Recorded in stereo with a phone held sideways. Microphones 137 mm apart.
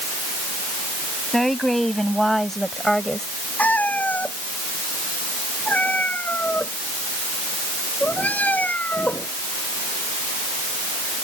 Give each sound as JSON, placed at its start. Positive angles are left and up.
{"t": 1.3, "sound": "a woman speaking", "side_deg": 0}
{"t": 3.6, "sound": "a cat meowing", "side_deg": 10}